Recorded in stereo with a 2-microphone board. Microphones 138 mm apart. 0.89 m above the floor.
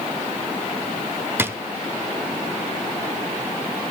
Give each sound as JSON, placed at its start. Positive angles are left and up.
{"t": 1.4, "sound": "a drawer", "side_deg": -15, "distance_m": 0.6}